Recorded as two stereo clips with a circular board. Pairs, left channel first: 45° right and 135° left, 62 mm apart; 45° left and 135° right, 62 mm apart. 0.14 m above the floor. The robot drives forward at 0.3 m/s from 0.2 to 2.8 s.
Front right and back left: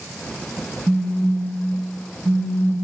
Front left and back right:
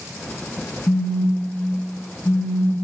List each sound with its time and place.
0.9 s a phone buzzing: 75° left, 1.1 m; by 2.8 s 110° left, 1.1 m